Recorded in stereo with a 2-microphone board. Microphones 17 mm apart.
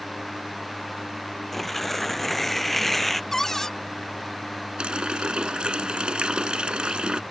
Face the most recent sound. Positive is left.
turn(degrees=-70)  # may be behind; listen again after turning